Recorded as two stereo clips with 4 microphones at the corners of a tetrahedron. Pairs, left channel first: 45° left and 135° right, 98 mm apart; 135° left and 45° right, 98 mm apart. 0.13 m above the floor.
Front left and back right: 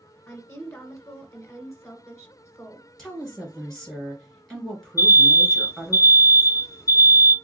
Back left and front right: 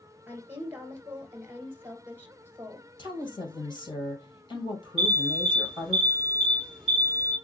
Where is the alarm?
60° left, 1.6 m.